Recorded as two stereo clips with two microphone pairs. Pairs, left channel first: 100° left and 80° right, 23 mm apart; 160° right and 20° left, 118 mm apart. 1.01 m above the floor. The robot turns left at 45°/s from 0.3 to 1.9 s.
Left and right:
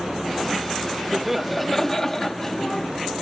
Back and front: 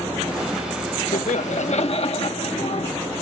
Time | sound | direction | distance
1.1 | laughter | 155° right | ?